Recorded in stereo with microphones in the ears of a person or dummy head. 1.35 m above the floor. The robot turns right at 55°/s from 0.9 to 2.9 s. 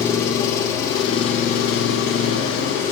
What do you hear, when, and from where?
0.0 s an engine running: 20° left, 1.8 m; by 2.9 s 130° left, 1.8 m